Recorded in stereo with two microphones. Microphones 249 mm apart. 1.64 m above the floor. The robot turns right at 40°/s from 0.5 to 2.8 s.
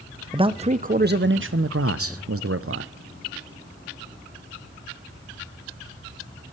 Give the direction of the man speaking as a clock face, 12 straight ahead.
5 o'clock.